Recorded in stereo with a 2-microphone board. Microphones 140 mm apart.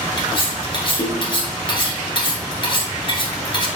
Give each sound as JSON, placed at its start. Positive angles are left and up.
{"t": 0.2, "sound": "cutlery clinking", "side_deg": 35, "distance_m": 0.9}